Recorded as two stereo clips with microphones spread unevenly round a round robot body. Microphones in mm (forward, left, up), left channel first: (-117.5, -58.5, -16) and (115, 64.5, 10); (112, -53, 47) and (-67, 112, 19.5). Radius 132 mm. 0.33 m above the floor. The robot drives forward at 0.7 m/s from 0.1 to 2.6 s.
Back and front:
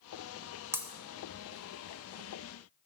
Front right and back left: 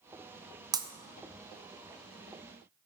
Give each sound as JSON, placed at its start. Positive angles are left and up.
{"t": 0.7, "sound": "breaking glass", "azimuth_deg": 105, "distance_m": 0.7}